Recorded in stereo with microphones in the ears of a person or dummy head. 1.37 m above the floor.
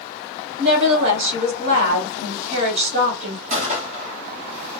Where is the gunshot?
45° right (ahead or behind), 1.2 m.